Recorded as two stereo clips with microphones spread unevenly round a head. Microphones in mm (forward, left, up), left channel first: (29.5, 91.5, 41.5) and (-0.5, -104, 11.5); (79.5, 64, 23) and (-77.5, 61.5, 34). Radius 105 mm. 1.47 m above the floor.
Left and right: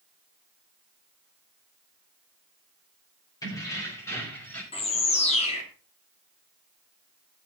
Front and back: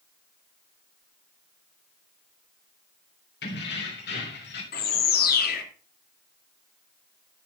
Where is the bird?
25° left, 2.5 m.